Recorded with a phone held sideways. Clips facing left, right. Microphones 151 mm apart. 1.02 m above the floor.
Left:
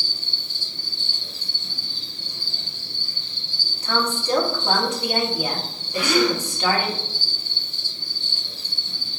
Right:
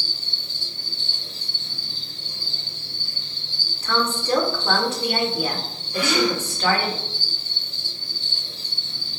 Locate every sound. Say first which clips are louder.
0.0 s an insect: even; 35° right (ahead or behind), 1.5 m
3.8 s a woman speaking: even; 15° left (ahead or behind), 1.1 m
5.9 s a gasp: left 1 dB; 5° left (ahead or behind), 1.1 m